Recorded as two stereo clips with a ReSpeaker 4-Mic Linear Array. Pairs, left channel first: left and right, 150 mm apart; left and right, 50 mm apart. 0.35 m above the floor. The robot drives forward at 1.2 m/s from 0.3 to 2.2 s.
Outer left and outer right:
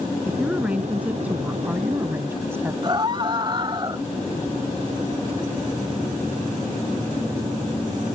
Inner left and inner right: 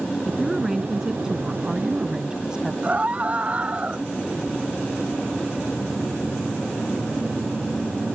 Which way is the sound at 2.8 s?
35° right (ahead or behind).